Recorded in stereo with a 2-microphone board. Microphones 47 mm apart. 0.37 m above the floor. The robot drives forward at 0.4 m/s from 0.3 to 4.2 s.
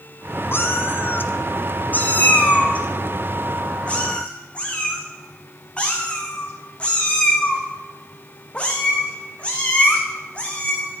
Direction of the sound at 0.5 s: 55° left (ahead or behind).